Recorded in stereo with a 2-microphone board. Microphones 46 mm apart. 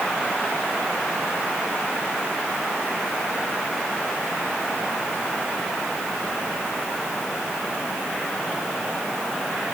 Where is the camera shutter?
No camera shutter in this recording.